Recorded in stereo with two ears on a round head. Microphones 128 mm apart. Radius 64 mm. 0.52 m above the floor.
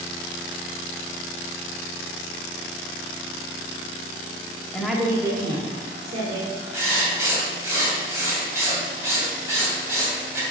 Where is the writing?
20° right (ahead or behind), 2.5 m.